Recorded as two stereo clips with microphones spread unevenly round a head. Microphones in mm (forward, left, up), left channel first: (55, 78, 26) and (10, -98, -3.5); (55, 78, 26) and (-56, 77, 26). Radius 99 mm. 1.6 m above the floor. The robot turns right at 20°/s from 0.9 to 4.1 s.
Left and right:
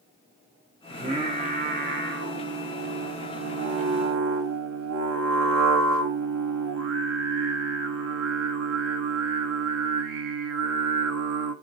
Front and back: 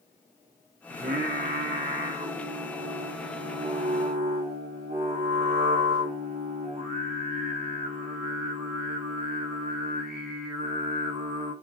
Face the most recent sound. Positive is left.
turn(degrees=-105)